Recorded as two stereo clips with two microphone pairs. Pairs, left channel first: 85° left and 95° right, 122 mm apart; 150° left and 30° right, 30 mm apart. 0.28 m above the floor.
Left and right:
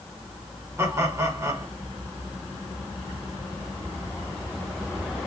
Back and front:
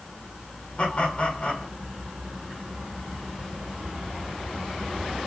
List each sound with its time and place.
0.8 s laughter: 155° right, 2.5 m